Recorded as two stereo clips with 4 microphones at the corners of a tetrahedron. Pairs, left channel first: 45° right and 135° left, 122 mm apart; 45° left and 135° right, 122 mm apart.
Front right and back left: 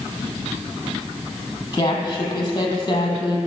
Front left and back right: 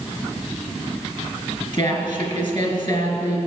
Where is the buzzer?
I don't hear a buzzer.